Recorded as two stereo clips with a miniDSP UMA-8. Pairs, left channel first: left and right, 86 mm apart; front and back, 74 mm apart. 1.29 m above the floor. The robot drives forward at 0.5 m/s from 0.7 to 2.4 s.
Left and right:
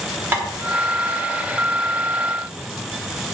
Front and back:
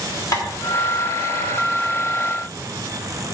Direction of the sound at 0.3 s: 30° right.